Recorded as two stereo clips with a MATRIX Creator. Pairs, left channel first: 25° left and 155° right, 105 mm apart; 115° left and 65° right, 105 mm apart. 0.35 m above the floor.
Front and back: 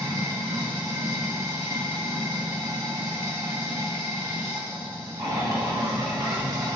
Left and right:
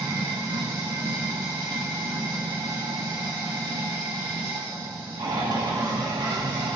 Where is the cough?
I don't hear a cough.